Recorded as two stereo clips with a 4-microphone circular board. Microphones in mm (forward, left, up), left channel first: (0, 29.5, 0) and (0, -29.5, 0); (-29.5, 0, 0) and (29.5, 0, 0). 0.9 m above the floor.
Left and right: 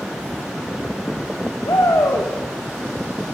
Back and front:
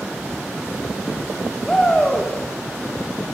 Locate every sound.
1.6 s a shout: 100° left, 1.5 m